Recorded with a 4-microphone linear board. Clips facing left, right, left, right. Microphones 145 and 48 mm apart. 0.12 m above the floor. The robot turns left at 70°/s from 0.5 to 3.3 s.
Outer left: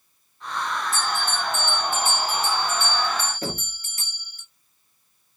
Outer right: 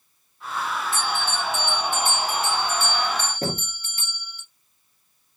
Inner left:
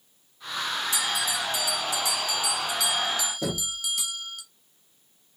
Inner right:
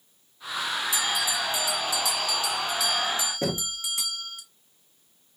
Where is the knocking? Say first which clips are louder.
Outer right 3 dB, inner right 1 dB; 50° right (ahead or behind), 1.3 m.